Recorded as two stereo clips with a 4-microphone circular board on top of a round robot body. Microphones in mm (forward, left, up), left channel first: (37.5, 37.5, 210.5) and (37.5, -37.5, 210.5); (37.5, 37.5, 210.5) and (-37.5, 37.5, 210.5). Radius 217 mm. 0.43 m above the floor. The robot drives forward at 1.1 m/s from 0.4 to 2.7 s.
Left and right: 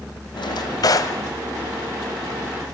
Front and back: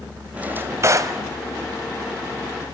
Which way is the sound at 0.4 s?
110° left.